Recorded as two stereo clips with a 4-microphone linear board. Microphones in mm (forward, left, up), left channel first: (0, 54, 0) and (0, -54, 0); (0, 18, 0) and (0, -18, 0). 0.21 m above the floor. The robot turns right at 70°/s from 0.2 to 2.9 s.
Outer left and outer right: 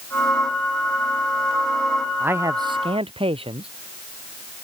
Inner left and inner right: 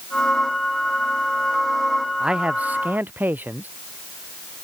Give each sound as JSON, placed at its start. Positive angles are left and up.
{"t": 2.2, "sound": "a man speaking", "azimuth_deg": -165}